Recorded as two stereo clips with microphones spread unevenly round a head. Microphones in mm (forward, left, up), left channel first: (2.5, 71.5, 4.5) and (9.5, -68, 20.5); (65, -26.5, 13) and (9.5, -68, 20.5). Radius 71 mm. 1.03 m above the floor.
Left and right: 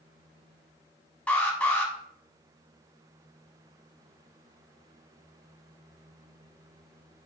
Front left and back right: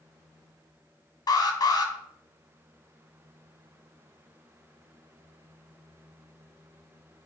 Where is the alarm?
10° left, 1.6 m.